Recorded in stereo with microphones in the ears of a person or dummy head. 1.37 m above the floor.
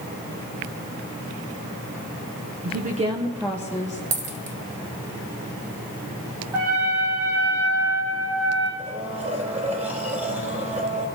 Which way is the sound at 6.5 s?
15° right (ahead or behind).